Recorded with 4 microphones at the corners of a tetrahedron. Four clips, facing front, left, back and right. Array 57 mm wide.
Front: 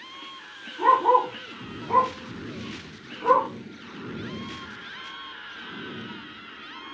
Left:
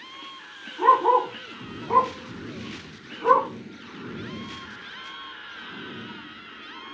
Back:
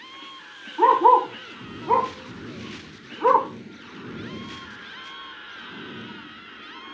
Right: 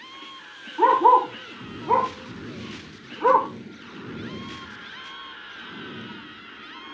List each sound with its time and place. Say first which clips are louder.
0.8 s a dog barking: right 2 dB, back 3 dB; 145° right, 9 m